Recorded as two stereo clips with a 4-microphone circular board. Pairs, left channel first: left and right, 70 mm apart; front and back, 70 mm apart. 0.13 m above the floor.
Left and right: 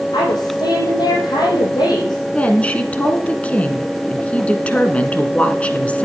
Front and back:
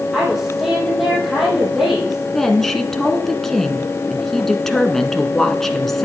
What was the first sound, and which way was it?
A woman speaking, 95° left.